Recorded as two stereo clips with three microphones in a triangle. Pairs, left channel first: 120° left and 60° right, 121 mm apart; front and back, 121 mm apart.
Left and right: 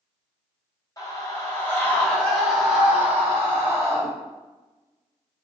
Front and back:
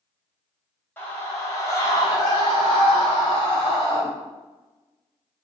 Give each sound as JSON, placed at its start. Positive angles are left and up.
{"t": 1.0, "sound": "a scream", "azimuth_deg": 70, "distance_m": 1.7}